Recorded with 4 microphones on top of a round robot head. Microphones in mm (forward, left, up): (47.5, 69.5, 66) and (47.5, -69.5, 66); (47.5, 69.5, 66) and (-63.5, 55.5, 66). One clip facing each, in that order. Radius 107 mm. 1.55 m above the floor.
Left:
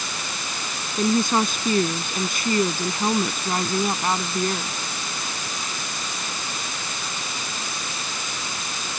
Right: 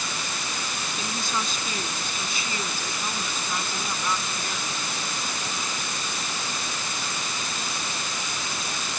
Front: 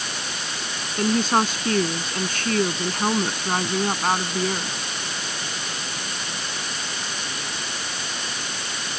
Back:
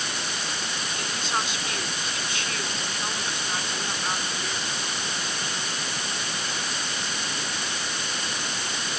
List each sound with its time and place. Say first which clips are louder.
1.0 s a woman speaking: left 13 dB, front 11 dB; 55° left; by 4.8 s 45° left